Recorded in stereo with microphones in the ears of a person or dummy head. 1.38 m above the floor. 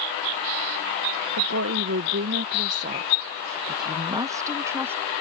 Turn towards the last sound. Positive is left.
turn(degrees=-15)  # may be behind; listen again after turning